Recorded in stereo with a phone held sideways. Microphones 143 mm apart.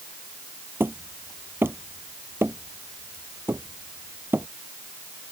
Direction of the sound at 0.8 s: 15° right (ahead or behind).